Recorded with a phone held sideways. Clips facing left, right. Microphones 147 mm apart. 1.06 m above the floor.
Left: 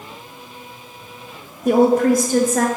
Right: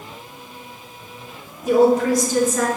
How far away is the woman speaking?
About 1.1 m.